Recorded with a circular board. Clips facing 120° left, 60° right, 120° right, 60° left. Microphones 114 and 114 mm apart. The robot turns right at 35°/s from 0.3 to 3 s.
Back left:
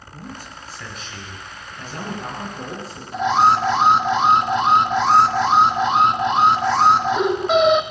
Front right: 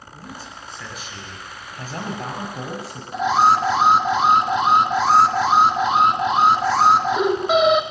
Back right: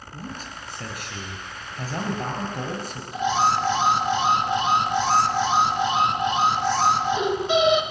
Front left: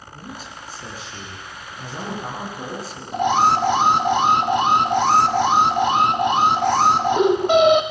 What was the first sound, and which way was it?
A man speaking, 165° right.